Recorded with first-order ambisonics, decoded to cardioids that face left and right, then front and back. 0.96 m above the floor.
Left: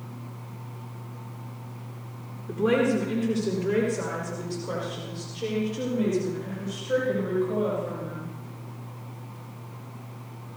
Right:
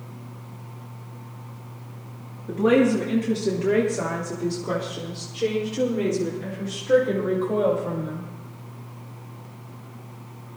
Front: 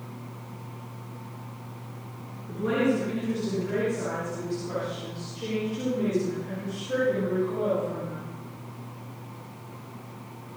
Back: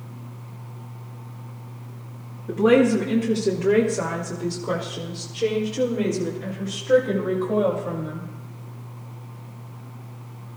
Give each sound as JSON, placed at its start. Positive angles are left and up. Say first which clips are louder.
{"t": 2.5, "sound": "a woman speaking", "louder": "right 4 dB, back 8 dB", "azimuth_deg": -140, "distance_m": 2.0}